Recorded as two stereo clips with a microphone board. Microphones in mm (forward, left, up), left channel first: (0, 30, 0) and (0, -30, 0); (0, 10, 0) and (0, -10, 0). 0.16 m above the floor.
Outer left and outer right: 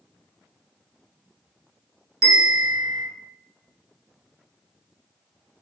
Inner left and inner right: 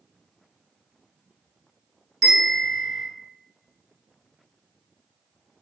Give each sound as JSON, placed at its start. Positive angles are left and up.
{"t": 2.2, "sound": "a bell", "side_deg": -5, "distance_m": 1.9}